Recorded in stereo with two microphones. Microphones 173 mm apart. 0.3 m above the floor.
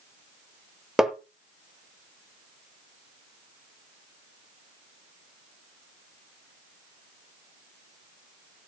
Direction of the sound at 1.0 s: 5° right (ahead or behind).